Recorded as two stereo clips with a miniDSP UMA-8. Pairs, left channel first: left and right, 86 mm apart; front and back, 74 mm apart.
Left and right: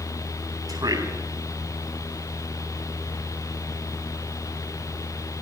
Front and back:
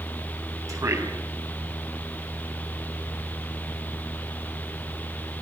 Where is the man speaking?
135° right, 6.5 m.